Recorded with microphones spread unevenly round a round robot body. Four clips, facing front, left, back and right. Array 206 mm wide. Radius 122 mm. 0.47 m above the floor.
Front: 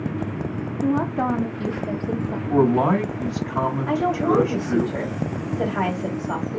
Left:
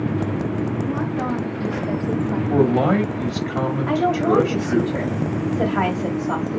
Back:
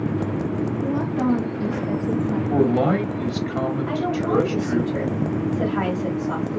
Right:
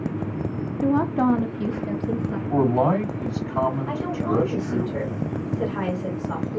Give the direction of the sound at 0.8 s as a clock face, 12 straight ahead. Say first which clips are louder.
Right 3 dB, front 3 dB; 2 o'clock.